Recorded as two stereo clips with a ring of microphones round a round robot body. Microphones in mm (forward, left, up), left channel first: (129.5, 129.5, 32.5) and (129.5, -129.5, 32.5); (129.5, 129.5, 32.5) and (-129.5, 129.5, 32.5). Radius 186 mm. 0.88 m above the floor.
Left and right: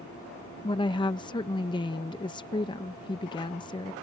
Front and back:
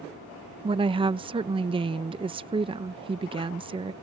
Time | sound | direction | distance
0.6 | a woman speaking | 140° left | ?